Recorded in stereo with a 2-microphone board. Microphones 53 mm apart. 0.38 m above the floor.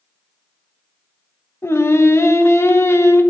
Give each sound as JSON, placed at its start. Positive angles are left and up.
{"t": 1.6, "sound": "singing", "side_deg": 55, "distance_m": 0.8}